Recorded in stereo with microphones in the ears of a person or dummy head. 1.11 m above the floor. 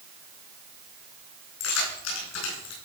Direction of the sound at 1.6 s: 75° left (ahead or behind).